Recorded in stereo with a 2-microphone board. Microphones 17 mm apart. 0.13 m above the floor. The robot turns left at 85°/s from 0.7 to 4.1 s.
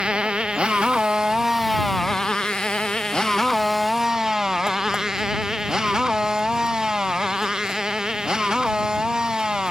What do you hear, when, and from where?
0.0 s a motorcycle: 75° right (ahead or behind); by 9.7 s 50° right (ahead or behind)